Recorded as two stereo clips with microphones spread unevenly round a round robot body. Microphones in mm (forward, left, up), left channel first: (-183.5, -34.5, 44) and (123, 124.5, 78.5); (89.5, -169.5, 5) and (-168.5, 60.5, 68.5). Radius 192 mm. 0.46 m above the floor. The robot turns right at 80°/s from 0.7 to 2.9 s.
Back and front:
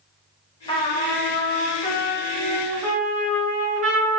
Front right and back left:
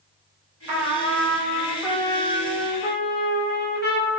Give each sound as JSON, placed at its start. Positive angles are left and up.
{"t": 0.7, "sound": "a trumpet", "azimuth_deg": 150, "distance_m": 0.8}